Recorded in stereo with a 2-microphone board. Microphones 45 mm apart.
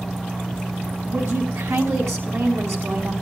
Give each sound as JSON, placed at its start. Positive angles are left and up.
{"t": 1.1, "sound": "a woman speaking", "side_deg": -75, "distance_m": 4.5}